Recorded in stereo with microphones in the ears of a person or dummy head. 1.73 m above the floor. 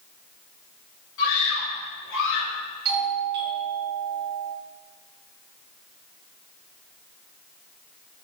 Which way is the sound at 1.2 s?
75° left (ahead or behind).